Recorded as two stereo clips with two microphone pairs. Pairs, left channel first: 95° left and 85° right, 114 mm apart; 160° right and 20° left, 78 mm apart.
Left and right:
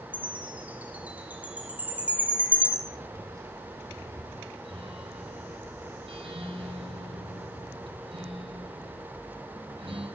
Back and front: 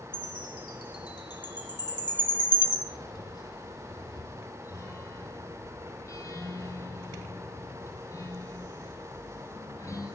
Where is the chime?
160° right, 4.5 m.